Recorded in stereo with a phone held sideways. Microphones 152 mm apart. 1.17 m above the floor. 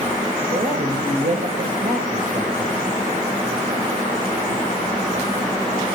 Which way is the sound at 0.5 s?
75° right (ahead or behind).